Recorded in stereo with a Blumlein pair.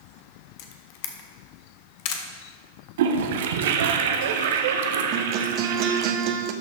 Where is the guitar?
40° right, 0.7 m.